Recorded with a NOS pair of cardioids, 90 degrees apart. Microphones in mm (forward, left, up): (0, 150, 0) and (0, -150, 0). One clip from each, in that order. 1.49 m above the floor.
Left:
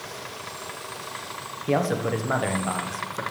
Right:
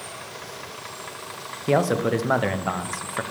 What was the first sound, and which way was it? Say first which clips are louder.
A man speaking: right 3 dB; 20° right.